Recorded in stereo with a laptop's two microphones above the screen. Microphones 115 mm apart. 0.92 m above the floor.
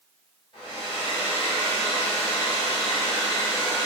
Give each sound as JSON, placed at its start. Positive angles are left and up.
{"t": 0.5, "sound": "a hair dryer", "side_deg": 50, "distance_m": 1.6}